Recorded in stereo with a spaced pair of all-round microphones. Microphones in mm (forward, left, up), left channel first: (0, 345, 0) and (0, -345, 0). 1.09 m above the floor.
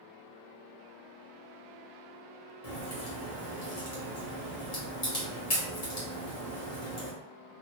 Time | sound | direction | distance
2.6 | a crack | 60° left (ahead or behind) | 1.2 m